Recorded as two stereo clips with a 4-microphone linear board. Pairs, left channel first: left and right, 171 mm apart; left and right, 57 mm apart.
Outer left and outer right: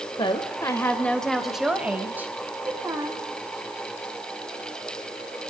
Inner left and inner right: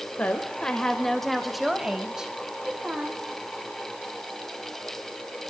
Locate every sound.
0.2 s a woman speaking: 30° left (ahead or behind), 1.0 m; by 3.2 s 20° right (ahead or behind), 2.5 m